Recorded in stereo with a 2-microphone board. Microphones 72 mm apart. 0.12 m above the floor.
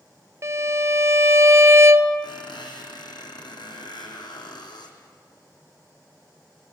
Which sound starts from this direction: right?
A violin, at 0.4 s.